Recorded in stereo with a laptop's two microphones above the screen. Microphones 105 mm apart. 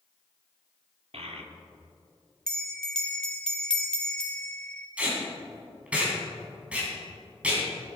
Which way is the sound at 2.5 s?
5° left (ahead or behind).